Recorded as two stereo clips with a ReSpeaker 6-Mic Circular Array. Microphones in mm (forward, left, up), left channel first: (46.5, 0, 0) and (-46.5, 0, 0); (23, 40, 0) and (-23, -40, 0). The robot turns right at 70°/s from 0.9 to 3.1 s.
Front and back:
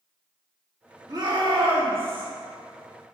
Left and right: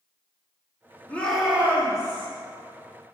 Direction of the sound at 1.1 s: 130° left.